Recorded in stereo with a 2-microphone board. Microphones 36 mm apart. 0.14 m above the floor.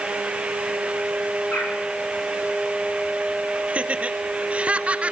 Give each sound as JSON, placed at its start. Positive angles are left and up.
{"t": 1.5, "sound": "a bird", "side_deg": 60, "distance_m": 9.5}
{"t": 3.7, "sound": "laughter", "side_deg": -35, "distance_m": 1.8}